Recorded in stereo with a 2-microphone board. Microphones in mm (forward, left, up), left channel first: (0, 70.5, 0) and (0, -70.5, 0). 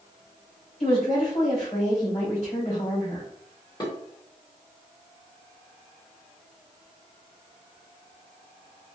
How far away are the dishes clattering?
About 1.4 m.